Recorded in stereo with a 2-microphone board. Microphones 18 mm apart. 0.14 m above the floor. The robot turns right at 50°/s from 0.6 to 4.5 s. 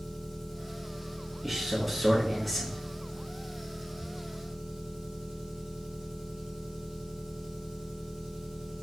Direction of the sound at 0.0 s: 40° left.